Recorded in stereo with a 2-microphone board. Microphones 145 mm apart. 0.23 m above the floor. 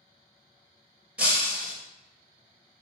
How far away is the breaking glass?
About 1.5 m.